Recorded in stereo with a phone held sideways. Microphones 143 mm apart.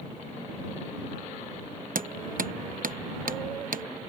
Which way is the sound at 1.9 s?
75° right (ahead or behind).